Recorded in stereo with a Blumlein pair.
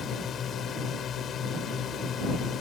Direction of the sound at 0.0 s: 25° left.